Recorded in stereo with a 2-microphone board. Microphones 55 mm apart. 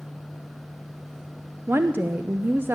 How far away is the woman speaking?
About 0.7 m.